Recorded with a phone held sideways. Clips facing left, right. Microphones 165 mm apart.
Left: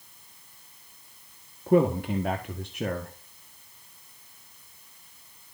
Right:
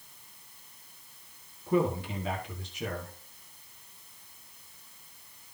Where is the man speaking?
55° left (ahead or behind), 1.5 m.